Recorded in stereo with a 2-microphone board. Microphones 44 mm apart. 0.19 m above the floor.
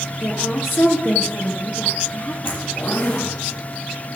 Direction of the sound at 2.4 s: 60° left (ahead or behind).